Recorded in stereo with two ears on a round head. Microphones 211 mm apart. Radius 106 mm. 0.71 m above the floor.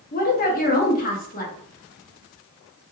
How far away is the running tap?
No running tap in this recording.